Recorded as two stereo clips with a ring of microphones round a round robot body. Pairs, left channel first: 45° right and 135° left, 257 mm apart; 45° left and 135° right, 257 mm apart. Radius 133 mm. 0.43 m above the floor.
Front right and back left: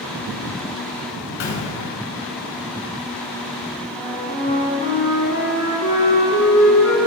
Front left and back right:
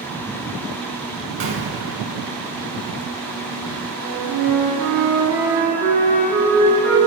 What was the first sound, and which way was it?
A gunshot, 85° right.